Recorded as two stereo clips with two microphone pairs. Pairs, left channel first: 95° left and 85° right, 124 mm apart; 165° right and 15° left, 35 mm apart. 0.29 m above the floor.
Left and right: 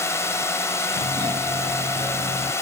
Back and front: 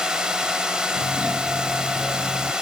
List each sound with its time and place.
0.0 s a drone: 55° left
1.0 s a doorbell: 30° right